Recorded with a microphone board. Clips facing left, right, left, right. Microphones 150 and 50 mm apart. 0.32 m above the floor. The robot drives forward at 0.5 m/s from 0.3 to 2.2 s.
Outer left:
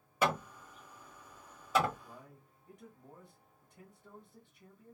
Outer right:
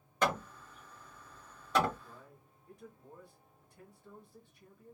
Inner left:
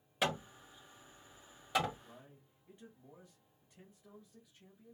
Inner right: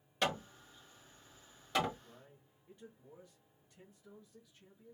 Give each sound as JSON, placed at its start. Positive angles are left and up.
{"t": 0.2, "sound": "hammering", "side_deg": 10, "distance_m": 1.1}
{"t": 2.0, "sound": "a man speaking", "side_deg": 20, "distance_m": 1.4}